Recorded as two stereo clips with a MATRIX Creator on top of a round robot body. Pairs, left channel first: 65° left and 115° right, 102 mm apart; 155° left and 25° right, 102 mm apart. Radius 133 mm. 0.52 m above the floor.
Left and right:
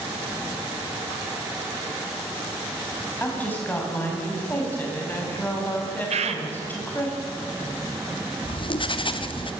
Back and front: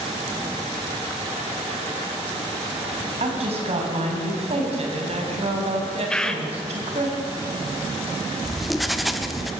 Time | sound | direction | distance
3.2 | a woman speaking | 5° right | 5 m
6.1 | a bird | 120° right | 1.4 m
8.4 | writing | 65° left | 1.4 m